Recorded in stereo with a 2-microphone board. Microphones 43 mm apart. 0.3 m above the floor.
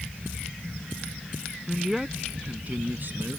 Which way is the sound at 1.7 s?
Centre (ahead or behind).